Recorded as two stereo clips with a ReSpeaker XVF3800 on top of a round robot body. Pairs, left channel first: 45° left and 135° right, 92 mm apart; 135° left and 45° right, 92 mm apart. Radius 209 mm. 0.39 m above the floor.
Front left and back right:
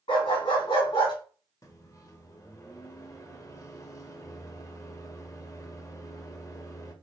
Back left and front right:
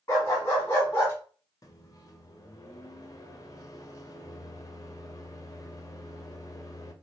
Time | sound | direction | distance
0.1 | a dog barking | 70° left | 2.5 m
1.6 | a microwave | 90° left | 1.0 m